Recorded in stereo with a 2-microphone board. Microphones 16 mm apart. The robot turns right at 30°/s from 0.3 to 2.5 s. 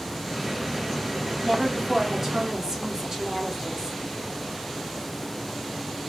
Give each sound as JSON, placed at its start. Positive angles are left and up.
{"t": 1.4, "sound": "a woman speaking", "azimuth_deg": -140, "distance_m": 1.2}